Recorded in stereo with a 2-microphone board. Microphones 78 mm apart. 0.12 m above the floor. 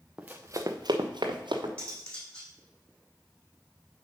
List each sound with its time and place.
0.2 s running footsteps: 10° right (ahead or behind), 1.0 m; by 1.7 s 85° right, 2.0 m
1.8 s cutlery clinking: 15° left (ahead or behind), 3 m